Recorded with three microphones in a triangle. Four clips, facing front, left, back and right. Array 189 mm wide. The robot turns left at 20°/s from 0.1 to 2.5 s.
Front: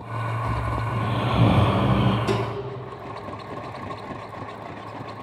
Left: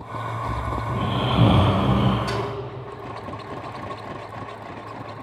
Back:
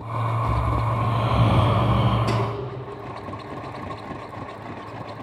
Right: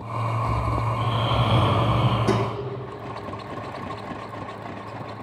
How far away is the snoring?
About 6.5 m.